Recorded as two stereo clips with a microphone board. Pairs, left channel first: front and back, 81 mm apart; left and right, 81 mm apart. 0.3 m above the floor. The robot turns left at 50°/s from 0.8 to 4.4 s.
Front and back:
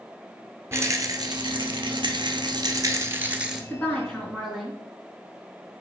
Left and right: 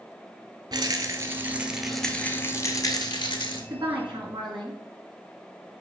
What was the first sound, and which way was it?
A rattle, 125° right.